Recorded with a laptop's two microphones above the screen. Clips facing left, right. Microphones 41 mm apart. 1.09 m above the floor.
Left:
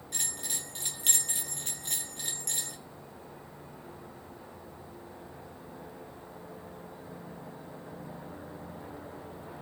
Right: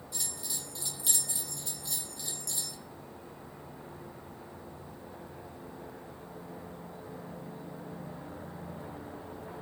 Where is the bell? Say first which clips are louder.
Left 3 dB; 55° left (ahead or behind), 1.5 m.